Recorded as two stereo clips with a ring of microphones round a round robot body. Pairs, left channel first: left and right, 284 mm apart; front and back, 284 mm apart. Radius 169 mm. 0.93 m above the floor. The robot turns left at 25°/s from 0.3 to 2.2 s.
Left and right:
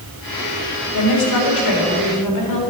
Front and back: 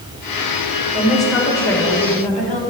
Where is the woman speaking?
95° left, 3.5 m; by 2.6 s 65° left, 3.5 m.